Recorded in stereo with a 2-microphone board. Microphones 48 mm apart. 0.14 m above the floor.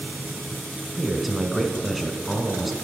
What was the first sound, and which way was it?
A man speaking, centre (ahead or behind).